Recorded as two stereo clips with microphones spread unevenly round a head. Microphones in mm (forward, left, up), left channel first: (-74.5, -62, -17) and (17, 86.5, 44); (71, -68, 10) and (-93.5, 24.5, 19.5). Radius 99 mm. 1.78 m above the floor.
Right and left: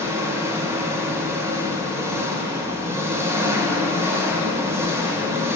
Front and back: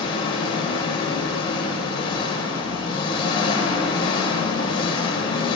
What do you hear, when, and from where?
0.0 s an engine running: 25° left, 1.0 m